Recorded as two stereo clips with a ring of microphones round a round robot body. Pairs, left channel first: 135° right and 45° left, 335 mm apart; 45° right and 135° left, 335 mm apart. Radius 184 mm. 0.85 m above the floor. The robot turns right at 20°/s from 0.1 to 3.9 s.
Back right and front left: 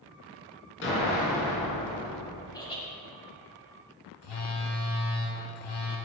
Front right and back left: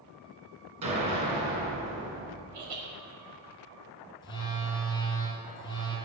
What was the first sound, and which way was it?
An explosion, 170° left.